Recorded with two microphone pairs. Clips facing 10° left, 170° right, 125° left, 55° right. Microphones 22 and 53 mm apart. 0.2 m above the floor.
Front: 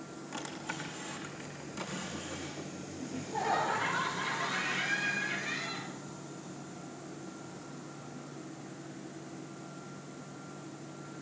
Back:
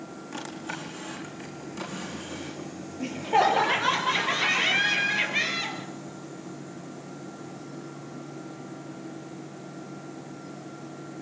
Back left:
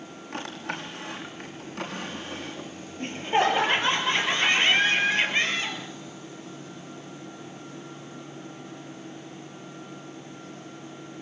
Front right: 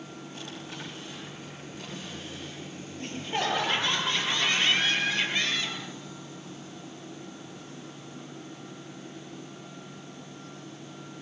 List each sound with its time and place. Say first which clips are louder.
0.3 s a drawer: back 4 dB, back left 9 dB; 105° left, 6 m
3.0 s laughter: back 13 dB, back left 7 dB; 175° right, 6 m